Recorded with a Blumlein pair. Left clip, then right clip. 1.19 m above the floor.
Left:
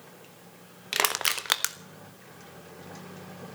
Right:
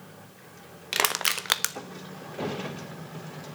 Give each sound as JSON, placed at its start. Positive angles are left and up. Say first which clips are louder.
{"t": 0.9, "sound": "crushing", "louder": "right 1 dB", "azimuth_deg": -5, "distance_m": 0.7}